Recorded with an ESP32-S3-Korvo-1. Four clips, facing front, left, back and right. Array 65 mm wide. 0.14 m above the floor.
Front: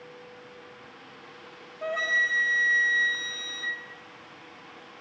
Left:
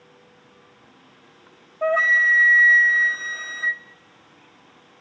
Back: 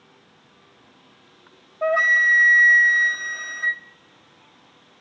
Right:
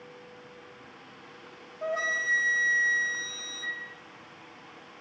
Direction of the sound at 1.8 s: 135° left.